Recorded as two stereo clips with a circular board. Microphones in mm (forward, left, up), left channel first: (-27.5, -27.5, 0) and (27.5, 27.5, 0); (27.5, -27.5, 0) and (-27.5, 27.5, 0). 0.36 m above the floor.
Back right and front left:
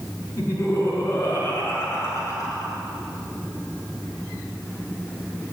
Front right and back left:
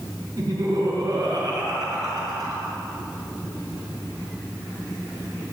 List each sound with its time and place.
0.4 s laughter: 170° left, 4.5 m; by 2.7 s 175° left, 6 m